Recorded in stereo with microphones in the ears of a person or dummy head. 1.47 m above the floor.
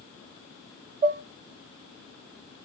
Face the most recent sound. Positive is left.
turn(degrees=-35)  # may be behind; listen again after turning